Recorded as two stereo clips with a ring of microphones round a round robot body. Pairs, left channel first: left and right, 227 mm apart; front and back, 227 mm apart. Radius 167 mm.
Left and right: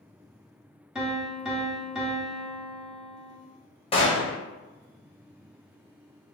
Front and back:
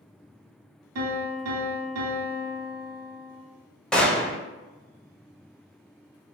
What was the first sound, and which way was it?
A piano, straight behind.